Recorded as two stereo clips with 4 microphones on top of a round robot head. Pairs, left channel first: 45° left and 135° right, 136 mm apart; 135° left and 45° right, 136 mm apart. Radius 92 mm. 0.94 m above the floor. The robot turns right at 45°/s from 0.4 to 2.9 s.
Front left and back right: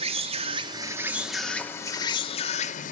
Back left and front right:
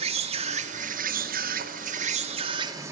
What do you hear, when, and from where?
0.0 s an insect: 90° right, 2 m; by 2.9 s 25° left, 2 m